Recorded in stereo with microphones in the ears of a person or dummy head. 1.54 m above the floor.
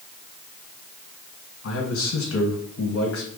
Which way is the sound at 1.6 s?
70° left (ahead or behind).